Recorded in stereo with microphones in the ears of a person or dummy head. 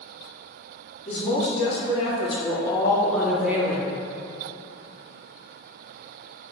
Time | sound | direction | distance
1.1 | a woman speaking | 45° left (ahead or behind) | 1.6 m